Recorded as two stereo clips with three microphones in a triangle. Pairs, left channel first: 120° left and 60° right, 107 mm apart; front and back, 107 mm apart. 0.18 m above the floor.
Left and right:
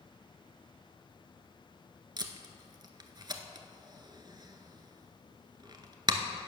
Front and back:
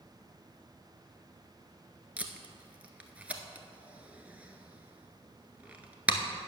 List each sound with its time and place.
2.2 s tape being pulled: 105° right, 0.8 m